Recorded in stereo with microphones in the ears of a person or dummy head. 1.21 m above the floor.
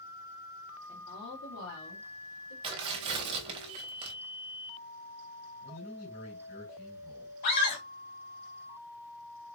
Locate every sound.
0.9 s a woman speaking: 35° left (ahead or behind), 1.1 m; by 2.5 s 80° left, 2.5 m
2.6 s tearing paper: 30° right (ahead or behind), 0.9 m
5.6 s a man speaking: 80° left, 2.5 m
7.4 s a scream: 50° left (ahead or behind), 1.6 m